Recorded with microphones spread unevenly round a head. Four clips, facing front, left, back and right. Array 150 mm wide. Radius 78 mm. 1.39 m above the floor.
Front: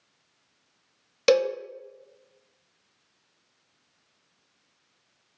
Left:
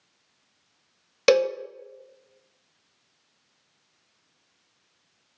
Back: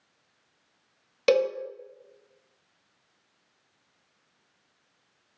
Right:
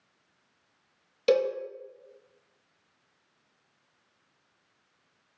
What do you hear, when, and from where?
1.3 s a cowbell: 100° left, 0.8 m